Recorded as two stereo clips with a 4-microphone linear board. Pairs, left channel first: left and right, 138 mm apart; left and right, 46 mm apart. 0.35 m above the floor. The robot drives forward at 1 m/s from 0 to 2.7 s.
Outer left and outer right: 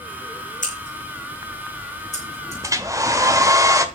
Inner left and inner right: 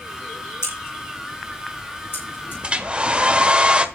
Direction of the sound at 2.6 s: 25° right (ahead or behind).